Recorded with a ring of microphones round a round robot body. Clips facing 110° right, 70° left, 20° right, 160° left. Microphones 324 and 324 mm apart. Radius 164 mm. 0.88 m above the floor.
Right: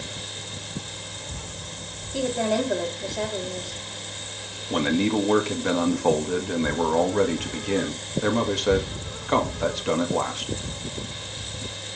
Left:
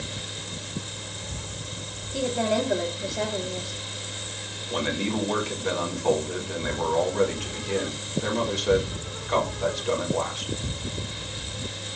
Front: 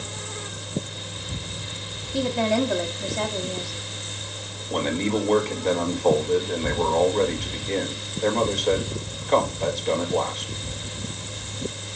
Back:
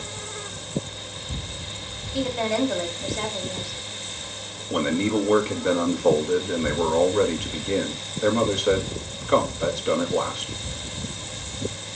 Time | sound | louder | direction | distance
2.1 | a woman speaking | right 1 dB, front 2 dB | 20° right | 2.0 m
4.7 | a man speaking | right 6 dB, back 2 dB | 125° right | 1.7 m